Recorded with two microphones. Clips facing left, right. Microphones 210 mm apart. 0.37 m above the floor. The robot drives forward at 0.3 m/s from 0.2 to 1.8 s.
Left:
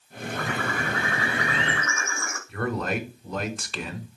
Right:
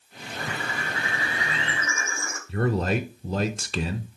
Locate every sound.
0.3 s a bird: 80° left, 1.5 m; by 2.4 s 70° left (ahead or behind), 1.6 m
2.5 s a man speaking: 30° right (ahead or behind), 0.9 m